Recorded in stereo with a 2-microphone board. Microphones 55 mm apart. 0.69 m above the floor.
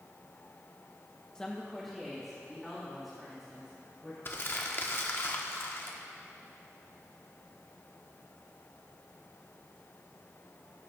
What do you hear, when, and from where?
1.4 s a woman speaking: 15° left (ahead or behind), 0.7 m; by 4.2 s 5° right (ahead or behind), 4 m
4.2 s crumpling: 45° left (ahead or behind), 1.0 m